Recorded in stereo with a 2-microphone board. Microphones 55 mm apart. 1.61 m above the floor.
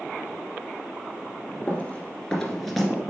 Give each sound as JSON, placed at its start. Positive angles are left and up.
{"t": 1.7, "sound": "running footsteps", "side_deg": 30, "distance_m": 1.8}